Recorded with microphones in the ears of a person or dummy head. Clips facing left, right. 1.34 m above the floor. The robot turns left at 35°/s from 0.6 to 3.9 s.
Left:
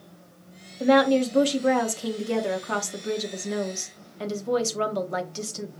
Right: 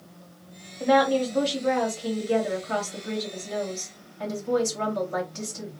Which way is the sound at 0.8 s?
165° left.